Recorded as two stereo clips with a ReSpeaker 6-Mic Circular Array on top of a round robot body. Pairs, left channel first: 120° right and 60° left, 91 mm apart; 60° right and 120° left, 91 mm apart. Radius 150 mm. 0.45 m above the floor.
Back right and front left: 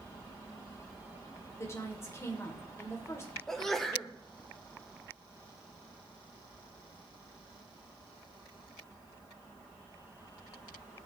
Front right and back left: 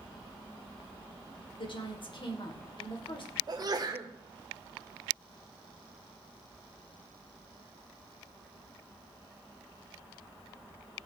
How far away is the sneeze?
About 2.0 m.